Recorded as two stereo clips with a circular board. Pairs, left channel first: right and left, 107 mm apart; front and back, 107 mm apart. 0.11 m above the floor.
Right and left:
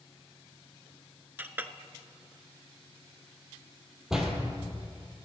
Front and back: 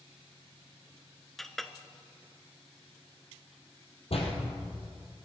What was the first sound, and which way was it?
A clink, 80° left.